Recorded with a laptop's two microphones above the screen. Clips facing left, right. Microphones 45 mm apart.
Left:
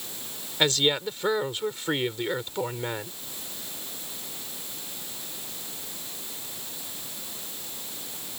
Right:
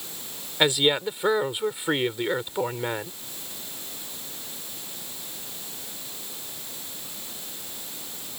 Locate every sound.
0.6 s a woman speaking: 15° right (ahead or behind)